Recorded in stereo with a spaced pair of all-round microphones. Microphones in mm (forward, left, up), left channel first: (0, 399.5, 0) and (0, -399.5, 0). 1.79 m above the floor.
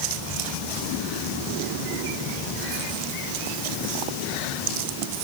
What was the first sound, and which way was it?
Only background noise.